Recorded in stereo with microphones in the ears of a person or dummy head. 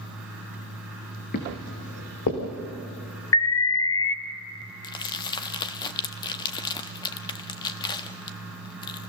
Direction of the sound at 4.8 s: 25° left (ahead or behind).